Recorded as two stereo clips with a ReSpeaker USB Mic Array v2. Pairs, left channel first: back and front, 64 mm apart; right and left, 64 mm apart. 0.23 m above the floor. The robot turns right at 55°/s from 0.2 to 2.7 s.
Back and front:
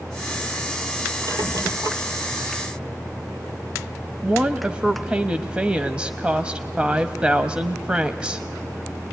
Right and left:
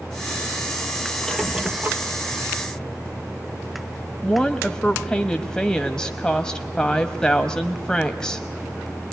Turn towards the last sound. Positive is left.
turn(degrees=-35)